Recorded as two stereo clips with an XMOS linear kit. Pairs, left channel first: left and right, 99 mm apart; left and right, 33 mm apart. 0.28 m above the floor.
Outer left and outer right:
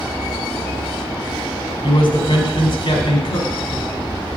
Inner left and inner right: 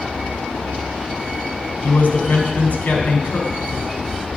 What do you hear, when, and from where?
1.8 s a man speaking: 60° left (ahead or behind), 2.5 m